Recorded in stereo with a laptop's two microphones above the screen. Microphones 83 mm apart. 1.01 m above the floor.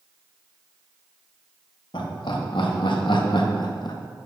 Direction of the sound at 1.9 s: 75° left (ahead or behind).